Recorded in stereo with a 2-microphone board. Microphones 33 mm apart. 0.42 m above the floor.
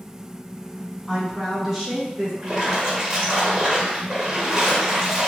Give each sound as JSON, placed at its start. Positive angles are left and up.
{"t": 1.1, "sound": "a woman speaking", "side_deg": 0, "distance_m": 1.4}
{"t": 2.4, "sound": "a splash", "side_deg": -25, "distance_m": 0.7}